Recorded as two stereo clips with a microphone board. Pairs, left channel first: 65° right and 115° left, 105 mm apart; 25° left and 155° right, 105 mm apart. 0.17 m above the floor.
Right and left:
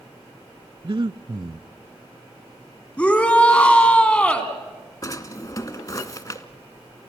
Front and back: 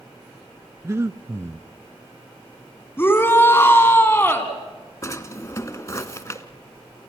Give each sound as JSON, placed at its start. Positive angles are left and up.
{"t": 0.8, "sound": "breathing", "azimuth_deg": 145, "distance_m": 0.5}
{"t": 3.0, "sound": "a shout", "azimuth_deg": -10, "distance_m": 1.8}
{"t": 5.0, "sound": "a drawer", "azimuth_deg": -25, "distance_m": 1.0}